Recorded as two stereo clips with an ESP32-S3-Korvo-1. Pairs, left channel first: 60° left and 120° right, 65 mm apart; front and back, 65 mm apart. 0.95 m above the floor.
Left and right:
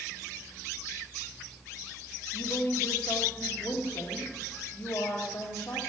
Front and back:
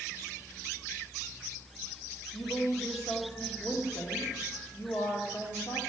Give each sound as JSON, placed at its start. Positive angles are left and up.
{"t": 2.3, "sound": "a woman speaking", "azimuth_deg": 30, "distance_m": 1.7}